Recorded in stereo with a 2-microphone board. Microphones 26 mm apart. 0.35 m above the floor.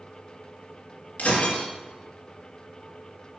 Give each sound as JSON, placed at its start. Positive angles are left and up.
{"t": 1.2, "sound": "breaking glass", "side_deg": 70, "distance_m": 2.5}